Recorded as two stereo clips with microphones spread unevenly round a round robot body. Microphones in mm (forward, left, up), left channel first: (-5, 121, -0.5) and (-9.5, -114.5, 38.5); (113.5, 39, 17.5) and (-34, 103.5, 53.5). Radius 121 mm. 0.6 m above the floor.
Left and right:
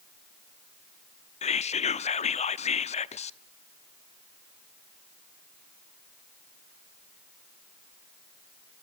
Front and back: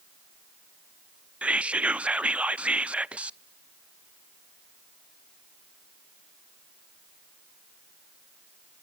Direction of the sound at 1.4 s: 60° left.